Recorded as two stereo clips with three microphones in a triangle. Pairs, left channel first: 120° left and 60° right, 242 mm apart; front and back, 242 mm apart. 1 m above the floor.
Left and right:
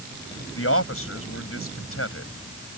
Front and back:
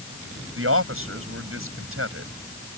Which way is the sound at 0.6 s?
150° left.